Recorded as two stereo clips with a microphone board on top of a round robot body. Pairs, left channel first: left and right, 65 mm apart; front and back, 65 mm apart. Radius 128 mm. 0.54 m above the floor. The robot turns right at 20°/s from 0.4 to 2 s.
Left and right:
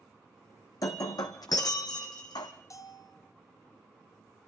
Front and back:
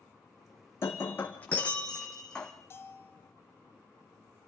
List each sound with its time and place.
0.8 s breaking glass: 55° left, 1.5 m; by 2.5 s 80° left, 1.5 m
2.7 s a bell: 55° left, 3.5 m